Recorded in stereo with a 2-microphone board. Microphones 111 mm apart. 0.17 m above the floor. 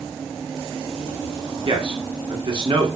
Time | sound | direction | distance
1.6 | a man speaking | 50° right (ahead or behind) | 2 m